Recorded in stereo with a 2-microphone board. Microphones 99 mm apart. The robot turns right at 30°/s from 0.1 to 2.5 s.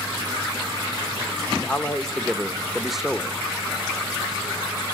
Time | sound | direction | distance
1.6 | a man speaking | 15° left (ahead or behind) | 0.9 m